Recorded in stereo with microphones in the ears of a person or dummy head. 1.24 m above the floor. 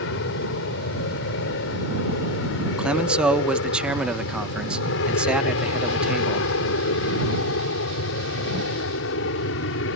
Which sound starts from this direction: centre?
A man speaking, at 2.8 s.